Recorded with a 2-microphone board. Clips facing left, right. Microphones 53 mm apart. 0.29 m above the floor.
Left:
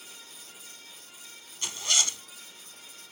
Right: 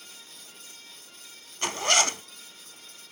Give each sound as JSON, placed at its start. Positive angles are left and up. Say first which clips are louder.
{"t": 1.6, "sound": "a zipper", "louder": "right 7 dB", "side_deg": -60}